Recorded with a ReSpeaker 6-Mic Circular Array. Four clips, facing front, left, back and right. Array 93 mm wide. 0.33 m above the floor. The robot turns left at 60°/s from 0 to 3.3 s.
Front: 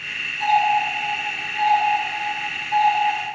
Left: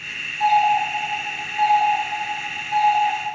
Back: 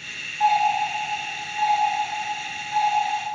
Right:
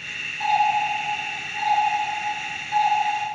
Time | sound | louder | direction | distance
0.4 | a doorbell | left 3 dB, front 1 dB | 170° right | 1.3 m